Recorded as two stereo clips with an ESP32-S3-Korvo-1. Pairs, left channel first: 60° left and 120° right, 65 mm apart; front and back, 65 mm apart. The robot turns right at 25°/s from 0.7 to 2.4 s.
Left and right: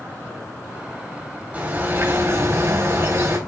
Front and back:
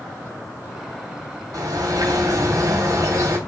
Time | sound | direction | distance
1.5 | a bird | 175° left | 3 m